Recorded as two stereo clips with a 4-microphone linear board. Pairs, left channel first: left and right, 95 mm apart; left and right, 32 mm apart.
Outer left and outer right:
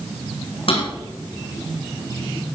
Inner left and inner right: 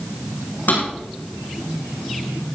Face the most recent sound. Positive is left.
turn(degrees=70)  # may be behind; listen again after turning